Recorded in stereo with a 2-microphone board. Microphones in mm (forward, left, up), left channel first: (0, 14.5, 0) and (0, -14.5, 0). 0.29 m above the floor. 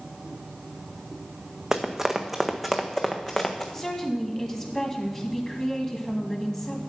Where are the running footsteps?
20° right (ahead or behind), 1.2 m; by 3.6 s 25° left (ahead or behind), 1.5 m.